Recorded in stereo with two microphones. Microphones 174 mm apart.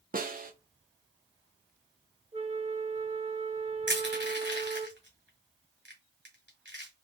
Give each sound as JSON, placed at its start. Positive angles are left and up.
{"t": 0.1, "sound": "a snare drum", "side_deg": -50, "distance_m": 0.6}
{"t": 2.3, "sound": "a flute", "side_deg": -35, "distance_m": 0.7}
{"t": 3.9, "sound": "crushing", "side_deg": -75, "distance_m": 1.6}